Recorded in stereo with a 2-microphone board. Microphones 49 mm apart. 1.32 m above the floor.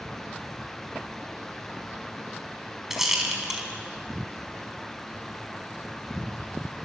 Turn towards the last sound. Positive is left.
turn(degrees=-10)  # may be behind; listen again after turning